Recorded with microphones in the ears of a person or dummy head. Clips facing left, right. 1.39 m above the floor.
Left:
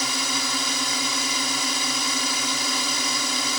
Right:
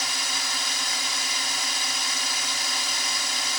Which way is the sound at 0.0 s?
75° left (ahead or behind).